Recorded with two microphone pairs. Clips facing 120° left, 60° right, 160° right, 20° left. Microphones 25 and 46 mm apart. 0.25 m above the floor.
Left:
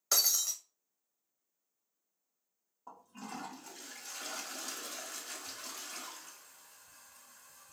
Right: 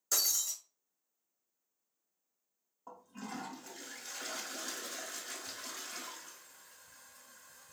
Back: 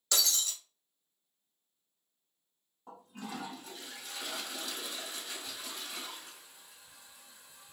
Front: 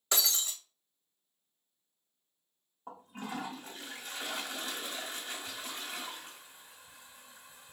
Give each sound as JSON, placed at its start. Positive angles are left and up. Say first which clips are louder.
{"t": 0.1, "sound": "breaking glass", "louder": "left 3 dB, even", "azimuth_deg": 80, "distance_m": 0.7}
{"t": 2.9, "sound": "a toilet flushing", "louder": "right 1 dB, front 2 dB", "azimuth_deg": 5, "distance_m": 1.1}